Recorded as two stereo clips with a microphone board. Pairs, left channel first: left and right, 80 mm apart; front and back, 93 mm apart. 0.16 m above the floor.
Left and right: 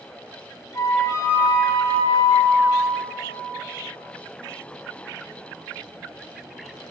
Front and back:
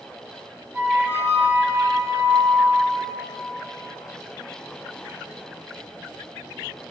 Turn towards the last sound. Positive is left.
turn(degrees=125)